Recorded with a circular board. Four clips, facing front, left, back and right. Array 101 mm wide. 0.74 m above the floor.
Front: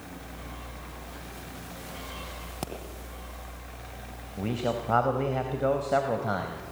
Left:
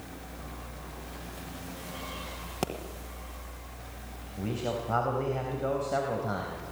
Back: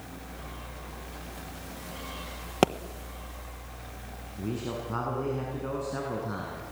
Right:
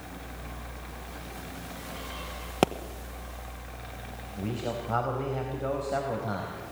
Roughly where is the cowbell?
I don't hear a cowbell.